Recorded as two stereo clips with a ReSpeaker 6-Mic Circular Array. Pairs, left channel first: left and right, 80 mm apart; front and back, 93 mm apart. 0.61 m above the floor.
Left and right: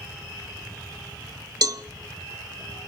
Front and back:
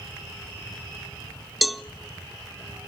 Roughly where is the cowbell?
Right.